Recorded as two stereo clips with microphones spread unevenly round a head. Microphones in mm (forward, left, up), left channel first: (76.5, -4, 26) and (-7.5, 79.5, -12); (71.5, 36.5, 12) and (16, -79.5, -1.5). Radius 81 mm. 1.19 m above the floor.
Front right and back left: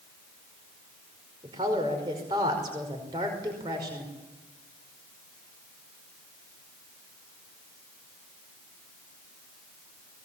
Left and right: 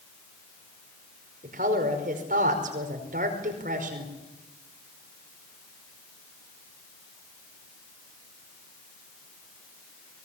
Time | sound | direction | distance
1.4 | a woman speaking | 160° right | 5 m